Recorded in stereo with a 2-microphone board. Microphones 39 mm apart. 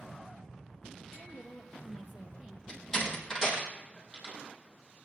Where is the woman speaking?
10° left (ahead or behind), 2.5 m; by 2.6 s 20° right (ahead or behind), 1.5 m.